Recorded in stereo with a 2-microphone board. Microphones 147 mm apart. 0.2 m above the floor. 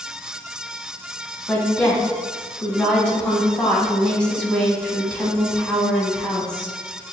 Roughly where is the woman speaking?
Centre.